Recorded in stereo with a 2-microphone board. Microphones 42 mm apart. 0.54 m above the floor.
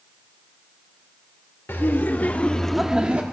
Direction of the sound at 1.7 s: 55° left (ahead or behind).